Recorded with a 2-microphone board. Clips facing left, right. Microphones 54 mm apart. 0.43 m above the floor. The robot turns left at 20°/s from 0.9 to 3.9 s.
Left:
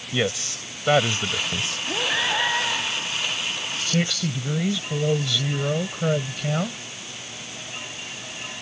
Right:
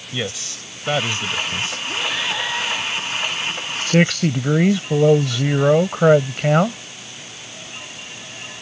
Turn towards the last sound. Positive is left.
turn(degrees=-50)  # may be behind; listen again after turning